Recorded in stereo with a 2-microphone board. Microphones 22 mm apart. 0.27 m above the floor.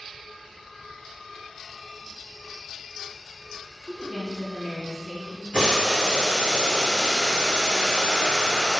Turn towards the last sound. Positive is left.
turn(degrees=0)  # may be behind; listen again after turning